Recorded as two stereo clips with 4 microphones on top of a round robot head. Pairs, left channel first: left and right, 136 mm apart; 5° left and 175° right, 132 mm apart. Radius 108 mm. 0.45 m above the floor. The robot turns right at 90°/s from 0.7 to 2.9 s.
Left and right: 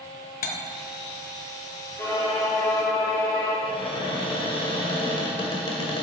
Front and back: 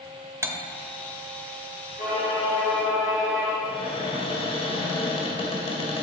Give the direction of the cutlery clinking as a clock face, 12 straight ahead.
8 o'clock.